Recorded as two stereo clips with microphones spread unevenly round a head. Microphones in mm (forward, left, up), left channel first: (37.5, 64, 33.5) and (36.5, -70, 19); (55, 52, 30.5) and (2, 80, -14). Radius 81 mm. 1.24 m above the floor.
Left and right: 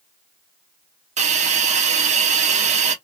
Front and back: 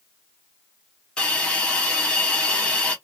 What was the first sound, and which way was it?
A hiss, 60° right.